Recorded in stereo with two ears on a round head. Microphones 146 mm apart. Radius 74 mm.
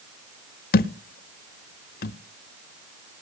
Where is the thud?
55° left (ahead or behind), 0.6 m.